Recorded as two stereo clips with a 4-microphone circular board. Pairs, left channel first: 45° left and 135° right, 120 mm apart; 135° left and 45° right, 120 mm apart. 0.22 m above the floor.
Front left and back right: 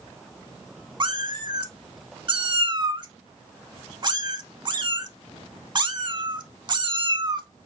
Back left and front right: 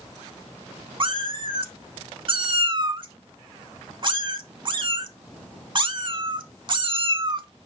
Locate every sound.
1.0 s a cat meowing: 85° right, 0.5 m